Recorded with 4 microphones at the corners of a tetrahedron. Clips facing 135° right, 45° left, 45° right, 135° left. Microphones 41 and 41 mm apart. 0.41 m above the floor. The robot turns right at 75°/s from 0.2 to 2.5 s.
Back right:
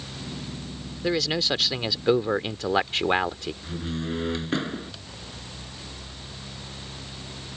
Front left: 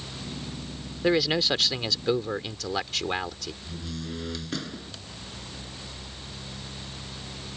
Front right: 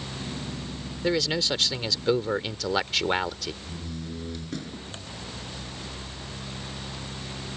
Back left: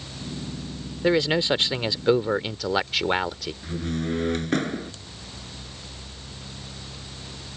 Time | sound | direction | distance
1.0 | a man speaking | 100° left | ?
3.6 | a door slam | 165° left | ?